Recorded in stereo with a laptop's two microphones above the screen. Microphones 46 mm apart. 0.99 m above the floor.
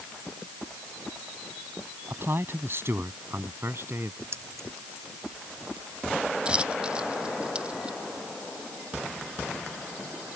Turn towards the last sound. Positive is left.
turn(degrees=-20)  # may be behind; listen again after turning